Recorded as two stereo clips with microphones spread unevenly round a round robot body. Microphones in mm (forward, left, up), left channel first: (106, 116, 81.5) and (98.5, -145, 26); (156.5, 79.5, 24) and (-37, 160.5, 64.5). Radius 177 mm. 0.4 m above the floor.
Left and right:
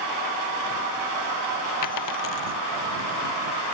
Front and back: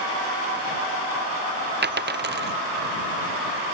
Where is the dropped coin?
120° left.